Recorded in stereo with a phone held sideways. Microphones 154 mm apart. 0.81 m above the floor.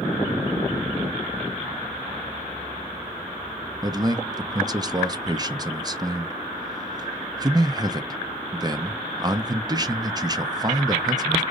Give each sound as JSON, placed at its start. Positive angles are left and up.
{"t": 3.8, "sound": "a man speaking", "side_deg": -25, "distance_m": 0.5}